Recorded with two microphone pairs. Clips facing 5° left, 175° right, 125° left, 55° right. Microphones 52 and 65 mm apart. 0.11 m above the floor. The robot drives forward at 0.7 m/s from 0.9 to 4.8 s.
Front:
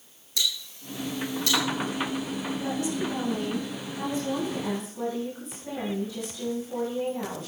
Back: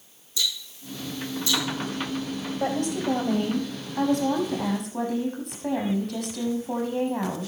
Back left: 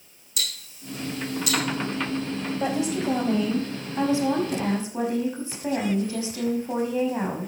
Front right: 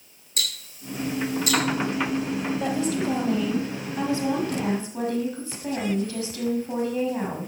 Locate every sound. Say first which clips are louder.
0.4 s ticking: even, front right 2 dB; 5° right, 4 m
2.6 s a woman speaking: back 5 dB, back left 3 dB; 165° right, 3 m; by 7.5 s 170° right, 4.5 m